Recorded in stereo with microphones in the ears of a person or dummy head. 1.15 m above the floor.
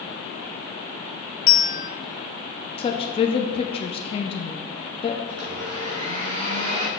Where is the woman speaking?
20° left (ahead or behind), 0.6 m.